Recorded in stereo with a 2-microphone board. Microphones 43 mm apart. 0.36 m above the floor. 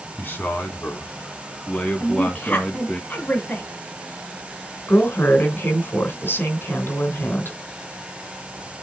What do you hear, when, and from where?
0.2 s a man speaking: 50° left (ahead or behind), 3 m; by 3.0 s 20° left (ahead or behind), 3.5 m
2.0 s a woman speaking: 40° left (ahead or behind), 2.5 m
4.9 s a woman speaking: 55° left (ahead or behind), 3 m